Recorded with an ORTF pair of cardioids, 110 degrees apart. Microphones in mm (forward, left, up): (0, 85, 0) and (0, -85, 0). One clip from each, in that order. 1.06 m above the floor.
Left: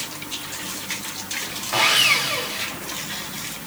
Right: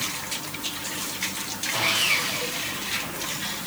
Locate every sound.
1.7 s sawing: 60° left, 3 m